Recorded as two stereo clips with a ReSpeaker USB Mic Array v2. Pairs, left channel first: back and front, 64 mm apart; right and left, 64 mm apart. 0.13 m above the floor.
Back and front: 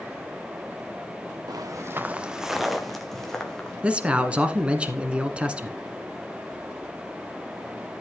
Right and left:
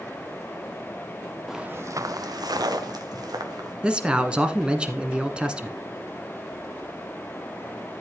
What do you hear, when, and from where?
1.5 s footsteps: straight ahead, 0.7 m; by 3.7 s 100° left, 3 m
3.8 s a man speaking: 40° left, 1.1 m